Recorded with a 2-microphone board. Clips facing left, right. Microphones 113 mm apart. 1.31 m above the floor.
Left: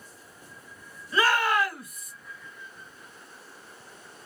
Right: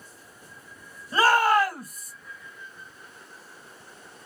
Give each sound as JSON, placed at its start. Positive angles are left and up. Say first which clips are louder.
{"t": 1.1, "sound": "a shout", "louder": "right 4 dB", "side_deg": -40, "distance_m": 2.5}